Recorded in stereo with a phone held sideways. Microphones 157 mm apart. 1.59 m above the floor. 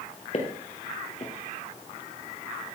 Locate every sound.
0.3 s footsteps: 45° left (ahead or behind), 2 m